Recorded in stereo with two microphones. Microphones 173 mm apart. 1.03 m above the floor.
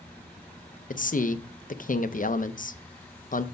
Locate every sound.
0.9 s a man speaking: 50° left (ahead or behind), 0.6 m